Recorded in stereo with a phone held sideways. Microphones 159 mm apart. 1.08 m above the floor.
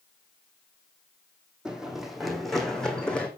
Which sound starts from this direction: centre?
Running footsteps, at 1.6 s.